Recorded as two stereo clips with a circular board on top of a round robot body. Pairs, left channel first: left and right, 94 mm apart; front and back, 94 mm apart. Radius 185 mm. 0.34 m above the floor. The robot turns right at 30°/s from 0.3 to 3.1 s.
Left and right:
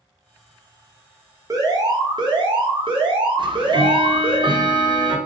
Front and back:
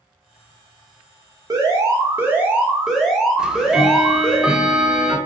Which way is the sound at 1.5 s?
135° right.